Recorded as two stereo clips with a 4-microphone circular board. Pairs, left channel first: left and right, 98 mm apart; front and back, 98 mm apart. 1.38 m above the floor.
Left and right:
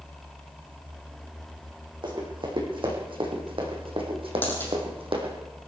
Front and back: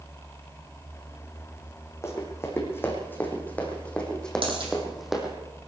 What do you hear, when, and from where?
2.0 s running footsteps: 60° right, 5 m; by 5.3 s 95° right, 3.5 m
4.4 s a dropped coin: 160° left, 5.5 m